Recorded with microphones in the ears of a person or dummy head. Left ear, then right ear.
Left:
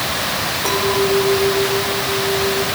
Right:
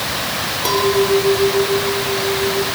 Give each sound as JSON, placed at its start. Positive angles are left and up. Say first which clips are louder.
{"t": 0.7, "sound": "a clink", "louder": "right 3 dB", "side_deg": -25, "distance_m": 4.5}